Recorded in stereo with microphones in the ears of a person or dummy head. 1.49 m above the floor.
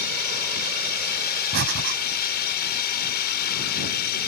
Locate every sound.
0.0 s a drone: 55° left (ahead or behind)
1.5 s breathing: 80° right